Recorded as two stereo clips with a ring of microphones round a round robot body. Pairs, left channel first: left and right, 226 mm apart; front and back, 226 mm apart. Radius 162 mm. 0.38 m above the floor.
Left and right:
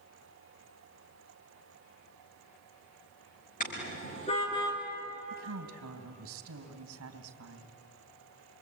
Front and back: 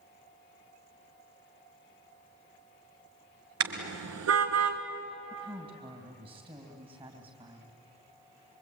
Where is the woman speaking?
110° right, 3 m.